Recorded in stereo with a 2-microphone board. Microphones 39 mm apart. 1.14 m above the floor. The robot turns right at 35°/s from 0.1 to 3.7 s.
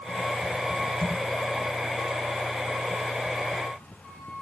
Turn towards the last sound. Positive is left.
No sound to turn to.